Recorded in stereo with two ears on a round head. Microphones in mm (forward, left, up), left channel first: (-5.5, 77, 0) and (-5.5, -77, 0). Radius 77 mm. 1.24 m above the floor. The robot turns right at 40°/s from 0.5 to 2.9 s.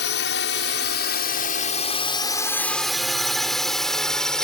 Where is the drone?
75° left (ahead or behind); by 4.4 s 5° left (ahead or behind).